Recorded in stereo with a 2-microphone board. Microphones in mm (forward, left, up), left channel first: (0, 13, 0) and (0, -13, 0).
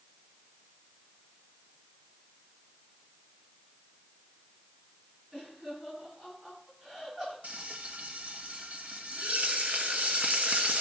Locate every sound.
5.3 s laughter: 10° right (ahead or behind), 9.5 m
7.4 s frying: 55° right (ahead or behind), 1.6 m